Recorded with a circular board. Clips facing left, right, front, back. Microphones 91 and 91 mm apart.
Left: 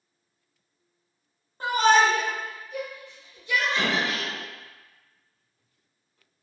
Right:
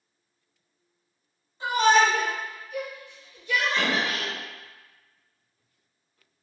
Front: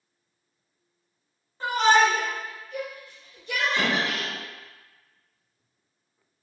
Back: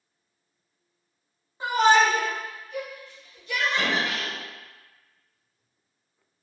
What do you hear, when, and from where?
1.6 s a shout: 105° left, 0.8 m; by 4.3 s straight ahead, 1.2 m
3.8 s an explosion: 5° right, 1.5 m